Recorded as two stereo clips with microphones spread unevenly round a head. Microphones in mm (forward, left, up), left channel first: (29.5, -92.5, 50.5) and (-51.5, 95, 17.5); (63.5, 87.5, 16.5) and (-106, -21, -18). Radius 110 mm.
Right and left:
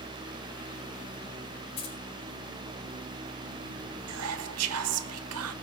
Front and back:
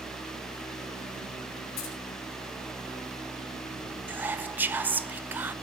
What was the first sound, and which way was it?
Keys jangling, 5° right.